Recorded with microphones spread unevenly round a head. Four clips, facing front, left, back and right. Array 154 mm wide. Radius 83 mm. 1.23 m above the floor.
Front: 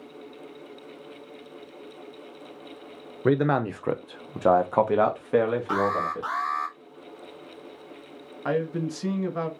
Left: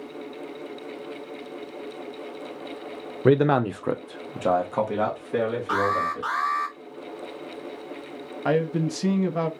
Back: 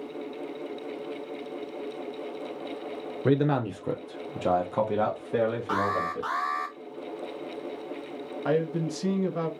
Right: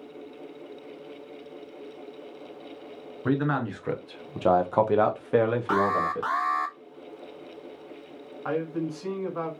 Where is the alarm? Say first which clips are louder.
Even, front 2 dB; 140° right, 0.8 m.